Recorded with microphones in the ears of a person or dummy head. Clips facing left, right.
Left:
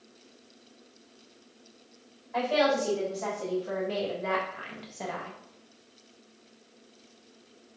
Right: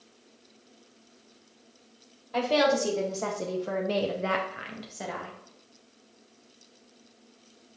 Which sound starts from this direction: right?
A woman speaking, at 2.3 s.